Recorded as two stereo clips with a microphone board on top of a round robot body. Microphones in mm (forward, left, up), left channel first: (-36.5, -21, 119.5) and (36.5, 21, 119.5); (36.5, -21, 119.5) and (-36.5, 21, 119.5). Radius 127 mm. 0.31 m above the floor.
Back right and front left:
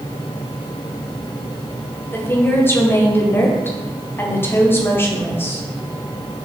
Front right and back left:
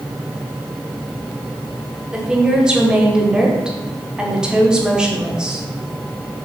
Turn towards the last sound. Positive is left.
turn(degrees=-140)